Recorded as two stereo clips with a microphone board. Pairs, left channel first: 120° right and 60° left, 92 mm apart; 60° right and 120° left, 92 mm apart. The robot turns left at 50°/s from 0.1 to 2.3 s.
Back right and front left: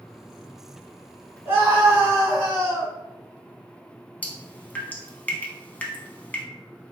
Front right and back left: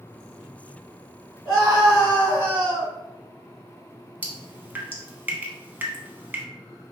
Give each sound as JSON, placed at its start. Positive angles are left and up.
{"t": 1.4, "sound": "a scream", "azimuth_deg": 125, "distance_m": 1.7}
{"t": 4.2, "sound": "dripping", "azimuth_deg": 180, "distance_m": 0.5}